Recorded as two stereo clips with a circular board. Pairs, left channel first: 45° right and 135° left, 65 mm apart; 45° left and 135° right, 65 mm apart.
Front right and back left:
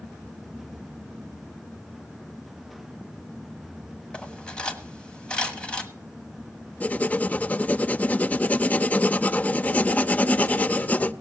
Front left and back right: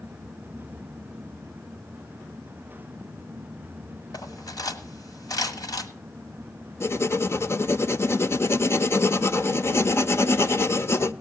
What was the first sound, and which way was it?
Cutlery clinking, 30° left.